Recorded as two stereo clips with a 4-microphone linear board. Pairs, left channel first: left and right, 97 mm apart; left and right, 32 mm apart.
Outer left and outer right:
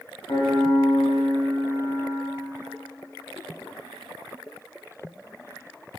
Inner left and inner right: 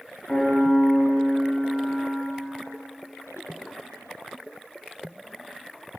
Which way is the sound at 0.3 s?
50° left (ahead or behind).